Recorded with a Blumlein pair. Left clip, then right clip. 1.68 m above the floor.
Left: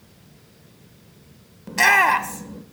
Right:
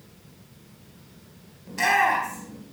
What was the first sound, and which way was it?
A shout, 65° left.